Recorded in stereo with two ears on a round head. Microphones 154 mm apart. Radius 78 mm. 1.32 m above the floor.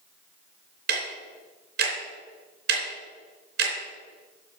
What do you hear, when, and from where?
0.9 s ticking: 65° right (ahead or behind), 3 m